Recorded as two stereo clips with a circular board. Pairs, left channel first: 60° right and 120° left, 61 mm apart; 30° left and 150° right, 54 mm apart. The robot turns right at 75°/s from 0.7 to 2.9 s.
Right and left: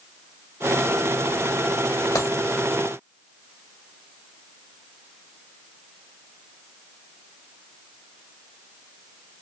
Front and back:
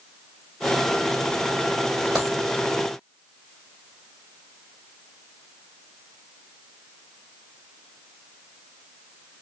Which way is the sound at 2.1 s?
70° right.